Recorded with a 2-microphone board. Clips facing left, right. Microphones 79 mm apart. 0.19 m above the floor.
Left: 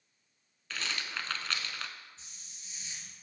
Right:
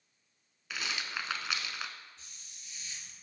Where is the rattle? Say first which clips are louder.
Even; 10° right (ahead or behind), 0.6 m.